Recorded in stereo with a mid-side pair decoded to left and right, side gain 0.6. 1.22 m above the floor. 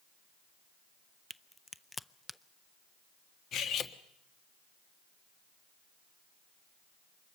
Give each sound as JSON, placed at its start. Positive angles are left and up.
{"t": 1.3, "sound": "a crack", "azimuth_deg": 15, "distance_m": 0.5}
{"t": 3.5, "sound": "cutlery clinking", "azimuth_deg": 55, "distance_m": 1.3}